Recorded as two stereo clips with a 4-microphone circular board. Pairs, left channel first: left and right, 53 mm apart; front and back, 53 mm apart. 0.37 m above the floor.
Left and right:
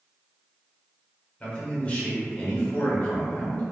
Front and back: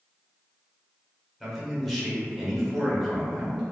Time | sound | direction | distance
1.4 | a man speaking | 95° left | 1.0 m